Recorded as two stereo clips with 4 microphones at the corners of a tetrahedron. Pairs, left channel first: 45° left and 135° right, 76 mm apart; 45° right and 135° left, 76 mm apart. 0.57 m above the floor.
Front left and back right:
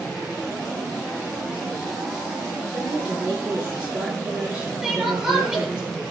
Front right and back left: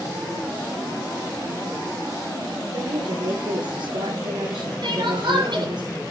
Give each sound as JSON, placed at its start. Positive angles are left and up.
{"t": 2.7, "sound": "a woman speaking", "azimuth_deg": 150, "distance_m": 8.0}
{"t": 4.8, "sound": "crying", "azimuth_deg": 145, "distance_m": 7.5}